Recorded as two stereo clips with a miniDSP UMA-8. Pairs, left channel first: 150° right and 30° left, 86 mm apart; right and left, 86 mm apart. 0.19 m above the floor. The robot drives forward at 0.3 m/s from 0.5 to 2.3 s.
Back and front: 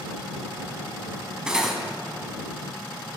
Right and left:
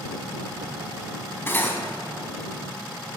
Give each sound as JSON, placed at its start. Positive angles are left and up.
{"t": 1.5, "sound": "cutlery clinking", "azimuth_deg": -45, "distance_m": 0.7}